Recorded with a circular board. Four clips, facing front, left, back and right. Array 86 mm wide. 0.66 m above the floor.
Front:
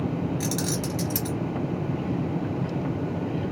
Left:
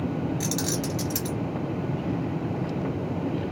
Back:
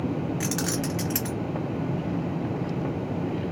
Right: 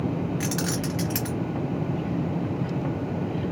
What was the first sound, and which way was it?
Keys jangling, 130° right.